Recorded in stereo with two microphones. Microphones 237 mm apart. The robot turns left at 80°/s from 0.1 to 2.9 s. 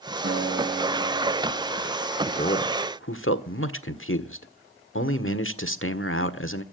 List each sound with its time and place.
0.2 s a guitar: 130° right, 6.5 m; by 1.7 s 110° left, 6.5 m
2.3 s a man speaking: 155° left, 1.5 m; by 6.6 s 105° left, 1.5 m